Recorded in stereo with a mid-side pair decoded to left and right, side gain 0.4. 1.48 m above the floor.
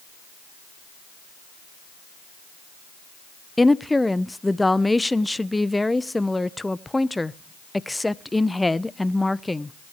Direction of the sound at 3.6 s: 15° left.